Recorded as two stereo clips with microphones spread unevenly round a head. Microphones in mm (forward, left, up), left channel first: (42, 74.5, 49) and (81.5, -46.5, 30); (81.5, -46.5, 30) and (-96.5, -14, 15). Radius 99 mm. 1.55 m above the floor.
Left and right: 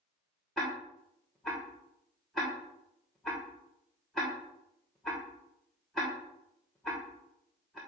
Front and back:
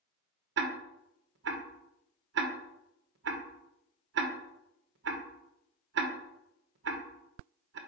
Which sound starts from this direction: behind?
Ticking, at 0.6 s.